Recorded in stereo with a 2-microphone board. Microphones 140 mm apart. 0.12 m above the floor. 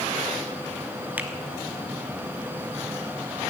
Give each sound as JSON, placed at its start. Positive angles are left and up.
{"t": 1.2, "sound": "a finger snap", "side_deg": -10, "distance_m": 1.1}